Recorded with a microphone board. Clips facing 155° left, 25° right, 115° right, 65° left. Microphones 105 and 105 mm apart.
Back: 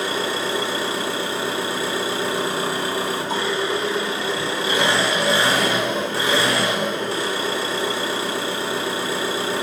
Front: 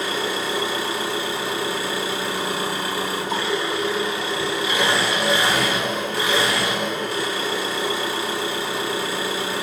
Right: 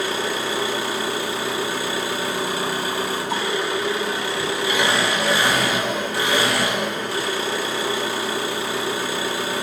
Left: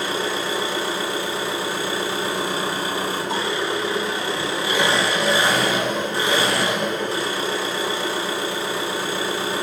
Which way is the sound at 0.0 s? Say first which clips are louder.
Back 1 dB, even; 125° left.